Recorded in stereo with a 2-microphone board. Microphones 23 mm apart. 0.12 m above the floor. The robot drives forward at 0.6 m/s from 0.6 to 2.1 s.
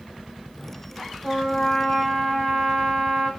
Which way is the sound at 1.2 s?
10° left (ahead or behind).